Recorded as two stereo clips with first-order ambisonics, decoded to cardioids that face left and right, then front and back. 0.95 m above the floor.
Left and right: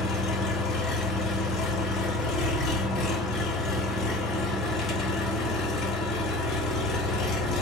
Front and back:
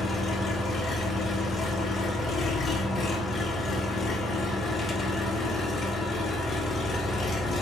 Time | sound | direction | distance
0.0 | an engine running | 55° left | 0.9 m